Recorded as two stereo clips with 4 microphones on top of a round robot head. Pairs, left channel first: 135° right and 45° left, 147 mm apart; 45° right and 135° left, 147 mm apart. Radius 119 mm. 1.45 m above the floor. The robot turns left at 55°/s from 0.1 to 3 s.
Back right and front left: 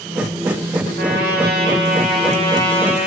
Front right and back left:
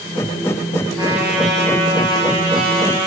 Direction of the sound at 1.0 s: 75° left.